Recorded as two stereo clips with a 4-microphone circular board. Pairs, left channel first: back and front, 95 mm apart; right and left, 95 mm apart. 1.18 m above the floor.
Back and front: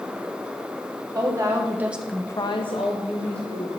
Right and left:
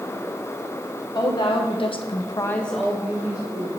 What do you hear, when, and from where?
1.1 s a woman speaking: 55° right, 1.5 m; by 3.7 s 160° left, 1.8 m